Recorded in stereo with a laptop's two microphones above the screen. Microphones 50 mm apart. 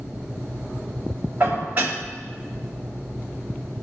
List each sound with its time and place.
1.4 s dishes clattering: 35° right (ahead or behind), 4 m